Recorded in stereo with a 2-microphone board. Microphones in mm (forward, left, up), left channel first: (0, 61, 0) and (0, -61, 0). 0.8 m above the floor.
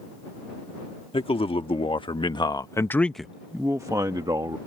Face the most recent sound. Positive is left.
turn(degrees=-40)  # may be behind; listen again after turning